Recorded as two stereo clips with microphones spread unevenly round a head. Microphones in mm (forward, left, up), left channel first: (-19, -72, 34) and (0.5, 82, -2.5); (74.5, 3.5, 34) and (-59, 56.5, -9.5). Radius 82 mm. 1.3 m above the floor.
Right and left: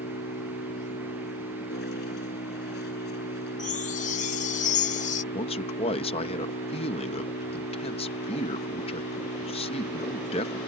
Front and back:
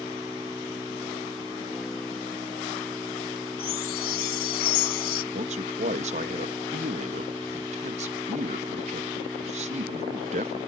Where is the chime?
55° right.